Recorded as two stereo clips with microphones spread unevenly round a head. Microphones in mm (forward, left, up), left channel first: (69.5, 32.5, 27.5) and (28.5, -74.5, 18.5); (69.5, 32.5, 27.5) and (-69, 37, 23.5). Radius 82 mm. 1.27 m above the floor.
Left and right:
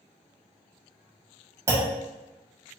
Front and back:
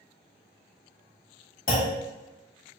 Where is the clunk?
45° right, 1.4 m.